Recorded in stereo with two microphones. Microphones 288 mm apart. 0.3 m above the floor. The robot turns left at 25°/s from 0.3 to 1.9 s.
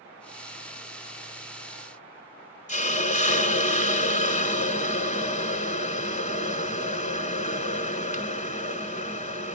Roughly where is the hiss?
Left.